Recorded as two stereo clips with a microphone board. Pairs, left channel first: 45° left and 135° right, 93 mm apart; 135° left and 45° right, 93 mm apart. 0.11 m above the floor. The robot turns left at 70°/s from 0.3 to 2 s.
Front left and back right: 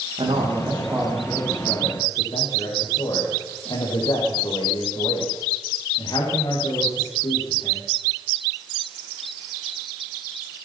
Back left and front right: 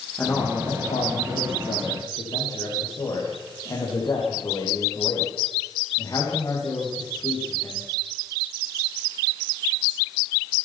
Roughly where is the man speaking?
Behind right.